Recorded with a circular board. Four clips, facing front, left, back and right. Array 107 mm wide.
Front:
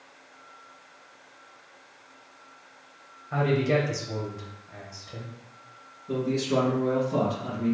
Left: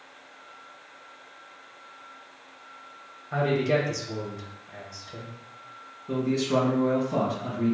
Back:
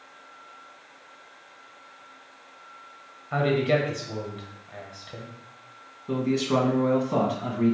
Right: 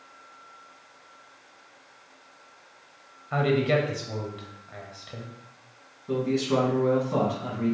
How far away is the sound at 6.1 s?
About 1.8 m.